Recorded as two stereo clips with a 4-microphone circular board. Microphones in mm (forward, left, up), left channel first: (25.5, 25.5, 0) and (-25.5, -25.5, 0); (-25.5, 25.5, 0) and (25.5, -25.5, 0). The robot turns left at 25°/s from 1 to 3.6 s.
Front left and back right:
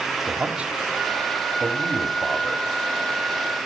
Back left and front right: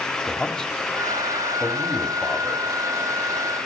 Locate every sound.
0.3 s a man speaking: 165° right, 1.3 m; by 2.7 s 155° left, 1.3 m